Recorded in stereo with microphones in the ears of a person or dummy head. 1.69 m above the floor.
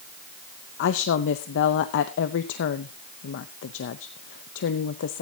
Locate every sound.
0.8 s a woman speaking: 60° left (ahead or behind), 0.7 m